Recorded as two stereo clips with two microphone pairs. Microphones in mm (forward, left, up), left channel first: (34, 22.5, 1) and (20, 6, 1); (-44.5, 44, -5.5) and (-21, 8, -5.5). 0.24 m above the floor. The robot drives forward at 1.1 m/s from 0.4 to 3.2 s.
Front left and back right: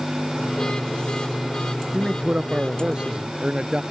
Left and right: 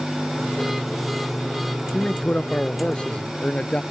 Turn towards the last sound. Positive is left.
turn(degrees=-175)